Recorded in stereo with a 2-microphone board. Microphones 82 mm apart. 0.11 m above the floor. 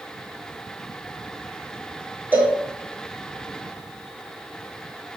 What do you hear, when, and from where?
2.3 s a cowbell: 25° right (ahead or behind), 0.6 m